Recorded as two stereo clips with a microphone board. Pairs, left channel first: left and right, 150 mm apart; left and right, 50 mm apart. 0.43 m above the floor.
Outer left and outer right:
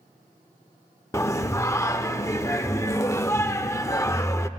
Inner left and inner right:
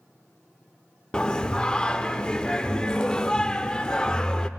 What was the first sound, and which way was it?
Singing, 20° left (ahead or behind).